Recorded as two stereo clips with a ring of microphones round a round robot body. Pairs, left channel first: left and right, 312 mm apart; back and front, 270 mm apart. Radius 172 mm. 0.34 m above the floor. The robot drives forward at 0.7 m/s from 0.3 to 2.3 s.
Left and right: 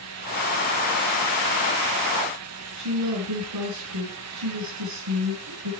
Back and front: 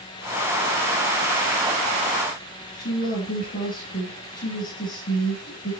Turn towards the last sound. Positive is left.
turn(degrees=-120)